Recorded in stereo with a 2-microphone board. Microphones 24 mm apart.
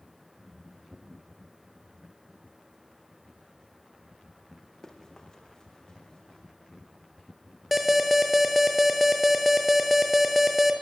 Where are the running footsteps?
30° left (ahead or behind), 5.5 m; by 6.4 s 35° left (ahead or behind), 7 m.